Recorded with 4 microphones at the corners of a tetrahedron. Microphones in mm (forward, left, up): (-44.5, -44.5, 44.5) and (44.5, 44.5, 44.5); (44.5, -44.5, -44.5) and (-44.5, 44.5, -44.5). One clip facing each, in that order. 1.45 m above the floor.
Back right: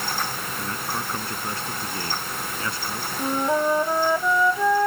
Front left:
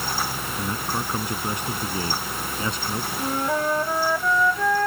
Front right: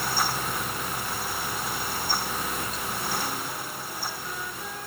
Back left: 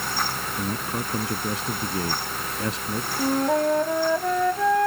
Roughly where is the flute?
Behind left.